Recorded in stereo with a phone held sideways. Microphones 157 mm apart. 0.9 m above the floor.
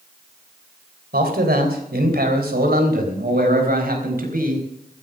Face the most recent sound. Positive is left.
turn(degrees=-70)  # may be behind; listen again after turning